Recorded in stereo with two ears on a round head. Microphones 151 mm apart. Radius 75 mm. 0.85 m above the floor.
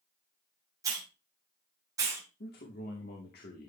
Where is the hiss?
20° right (ahead or behind), 3.5 m.